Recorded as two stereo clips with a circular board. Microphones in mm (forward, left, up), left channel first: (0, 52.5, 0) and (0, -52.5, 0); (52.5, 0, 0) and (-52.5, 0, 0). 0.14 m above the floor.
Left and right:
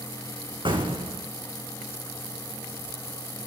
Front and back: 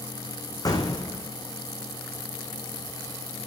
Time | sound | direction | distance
0.7 | an explosion | 50° right | 2.5 m